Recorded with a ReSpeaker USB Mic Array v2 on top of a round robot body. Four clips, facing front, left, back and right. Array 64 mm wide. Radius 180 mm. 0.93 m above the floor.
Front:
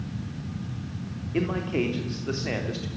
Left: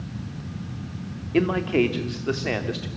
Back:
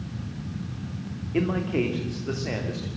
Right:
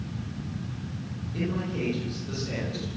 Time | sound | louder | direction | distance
1.3 | a man speaking | left 10 dB, back 2 dB | 90° left | 3 m